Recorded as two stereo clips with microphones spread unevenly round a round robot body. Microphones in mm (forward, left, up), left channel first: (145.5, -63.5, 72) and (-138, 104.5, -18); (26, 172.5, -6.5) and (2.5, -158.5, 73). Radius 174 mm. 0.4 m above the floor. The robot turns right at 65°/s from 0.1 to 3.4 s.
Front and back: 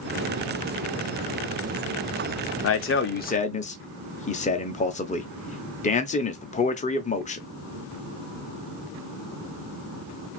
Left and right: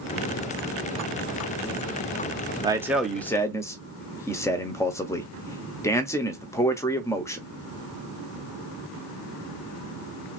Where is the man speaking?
Straight ahead, 0.8 m; by 7.5 s 45° left, 0.8 m.